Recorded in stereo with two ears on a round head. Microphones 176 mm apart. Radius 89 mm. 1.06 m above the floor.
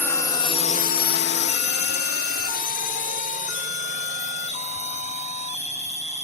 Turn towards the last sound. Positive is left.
turn(degrees=35)  # may be behind; listen again after turning